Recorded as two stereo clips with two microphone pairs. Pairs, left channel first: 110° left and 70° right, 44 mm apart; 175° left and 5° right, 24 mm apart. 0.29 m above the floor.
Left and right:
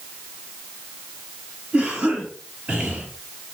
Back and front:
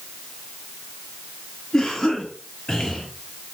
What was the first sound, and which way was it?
A cough, 115° right.